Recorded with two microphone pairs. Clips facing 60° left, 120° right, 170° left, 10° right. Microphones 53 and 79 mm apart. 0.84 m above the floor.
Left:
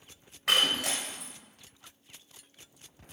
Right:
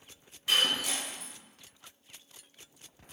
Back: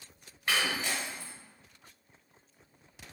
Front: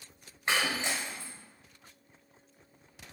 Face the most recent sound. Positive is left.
turn(degrees=55)